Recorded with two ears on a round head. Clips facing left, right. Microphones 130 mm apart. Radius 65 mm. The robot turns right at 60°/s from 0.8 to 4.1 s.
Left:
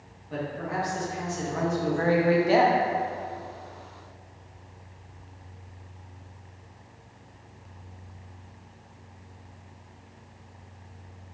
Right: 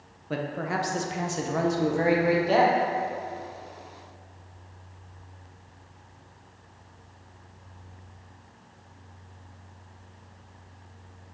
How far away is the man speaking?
About 0.9 m.